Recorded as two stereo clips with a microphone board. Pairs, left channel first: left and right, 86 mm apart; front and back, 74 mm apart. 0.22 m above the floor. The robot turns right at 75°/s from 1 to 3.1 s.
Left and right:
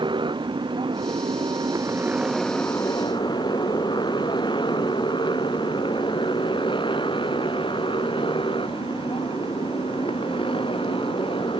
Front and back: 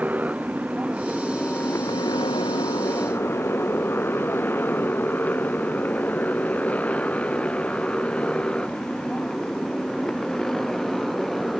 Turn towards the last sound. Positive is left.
turn(degrees=85)